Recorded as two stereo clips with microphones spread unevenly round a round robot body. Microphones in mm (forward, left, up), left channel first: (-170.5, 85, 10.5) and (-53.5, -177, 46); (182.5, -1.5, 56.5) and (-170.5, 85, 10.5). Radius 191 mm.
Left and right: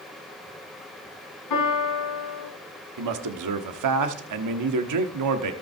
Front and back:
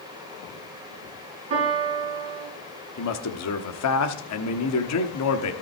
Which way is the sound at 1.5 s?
115° left.